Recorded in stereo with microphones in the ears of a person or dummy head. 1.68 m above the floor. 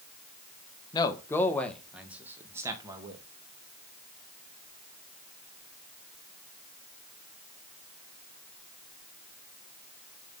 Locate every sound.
0.9 s a man speaking: 20° left (ahead or behind), 1.0 m; by 3.2 s 15° right (ahead or behind), 1.8 m